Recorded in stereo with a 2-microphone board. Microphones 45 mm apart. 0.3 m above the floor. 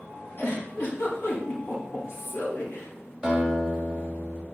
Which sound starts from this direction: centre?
A guitar, at 3.2 s.